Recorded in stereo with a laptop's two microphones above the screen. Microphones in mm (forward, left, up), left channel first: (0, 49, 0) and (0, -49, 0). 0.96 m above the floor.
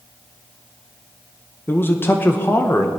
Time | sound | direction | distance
1.7 | a man speaking | 20° left (ahead or behind) | 0.9 m